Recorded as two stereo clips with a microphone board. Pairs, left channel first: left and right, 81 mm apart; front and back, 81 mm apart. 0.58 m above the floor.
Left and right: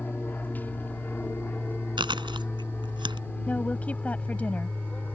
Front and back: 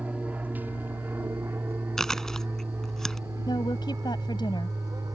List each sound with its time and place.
0.0 s an aircraft: 130° left; by 5.2 s 160° left
2.0 s chewing: 85° right
3.5 s a woman speaking: 20° left